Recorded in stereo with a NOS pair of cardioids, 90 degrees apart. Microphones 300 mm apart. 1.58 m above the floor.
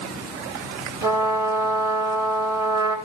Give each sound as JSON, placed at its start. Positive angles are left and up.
{"t": 1.0, "sound": "a trumpet", "azimuth_deg": -10, "distance_m": 5.5}